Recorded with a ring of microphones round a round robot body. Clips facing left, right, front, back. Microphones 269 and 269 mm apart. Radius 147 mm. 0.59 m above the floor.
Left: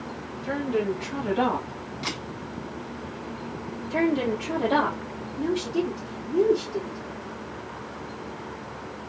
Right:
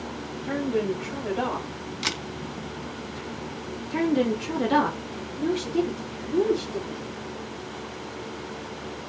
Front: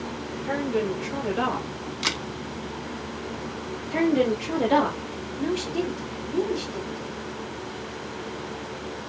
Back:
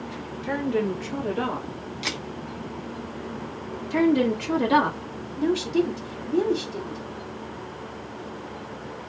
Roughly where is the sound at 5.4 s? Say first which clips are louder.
Right 1 dB, back 4 dB; behind.